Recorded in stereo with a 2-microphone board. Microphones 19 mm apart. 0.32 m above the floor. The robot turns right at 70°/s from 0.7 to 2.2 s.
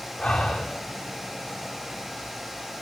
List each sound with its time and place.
0.2 s breathing: 75° left (ahead or behind), 5 m